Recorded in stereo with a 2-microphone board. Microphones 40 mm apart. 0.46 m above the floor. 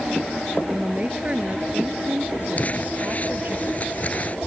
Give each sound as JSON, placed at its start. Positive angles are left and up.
{"t": 0.7, "sound": "a woman speaking", "side_deg": -25}
{"t": 2.6, "sound": "crumpling", "side_deg": 40}